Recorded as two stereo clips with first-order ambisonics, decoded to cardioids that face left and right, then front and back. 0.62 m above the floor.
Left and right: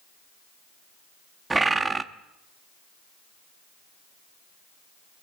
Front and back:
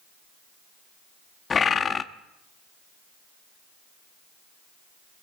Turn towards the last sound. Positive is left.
turn(degrees=-30)